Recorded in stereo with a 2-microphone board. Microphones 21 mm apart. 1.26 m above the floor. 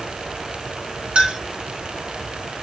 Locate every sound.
1.1 s a clink: 70° right (ahead or behind), 1.8 m